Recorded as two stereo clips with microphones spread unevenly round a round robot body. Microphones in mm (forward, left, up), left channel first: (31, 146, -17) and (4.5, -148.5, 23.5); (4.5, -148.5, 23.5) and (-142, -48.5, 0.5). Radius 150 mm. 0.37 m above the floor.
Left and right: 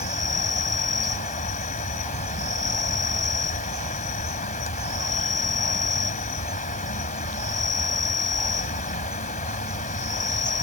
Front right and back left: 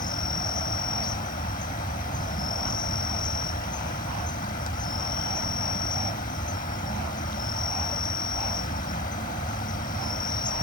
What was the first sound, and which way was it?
An insect, 25° left.